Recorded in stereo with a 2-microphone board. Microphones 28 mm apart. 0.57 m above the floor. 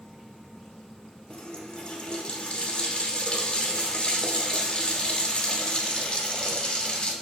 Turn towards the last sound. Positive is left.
turn(degrees=35)  # may be behind; listen again after turning